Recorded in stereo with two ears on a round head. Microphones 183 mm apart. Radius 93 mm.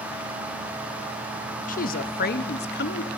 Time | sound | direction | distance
1.7 | a woman speaking | 45° left (ahead or behind) | 1.0 m